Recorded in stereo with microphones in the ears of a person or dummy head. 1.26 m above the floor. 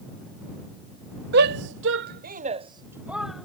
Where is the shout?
55° right (ahead or behind); by 3.5 s centre (ahead or behind).